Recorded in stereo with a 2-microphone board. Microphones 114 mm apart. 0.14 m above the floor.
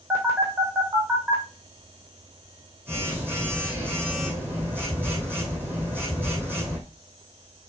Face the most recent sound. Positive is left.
turn(degrees=-15)  # may be behind; listen again after turning